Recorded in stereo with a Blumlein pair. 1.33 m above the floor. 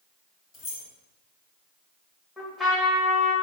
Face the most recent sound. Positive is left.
turn(degrees=15)